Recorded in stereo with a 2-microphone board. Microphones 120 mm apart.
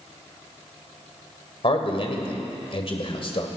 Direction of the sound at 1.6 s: 50° left (ahead or behind).